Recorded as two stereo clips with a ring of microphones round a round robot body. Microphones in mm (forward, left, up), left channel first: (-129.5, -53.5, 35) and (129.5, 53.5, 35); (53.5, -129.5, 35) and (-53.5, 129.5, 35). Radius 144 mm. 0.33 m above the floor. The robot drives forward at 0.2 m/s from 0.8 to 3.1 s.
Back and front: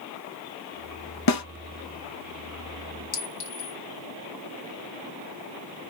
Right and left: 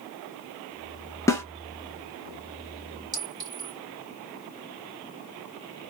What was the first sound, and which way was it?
A snare drum, 150° right.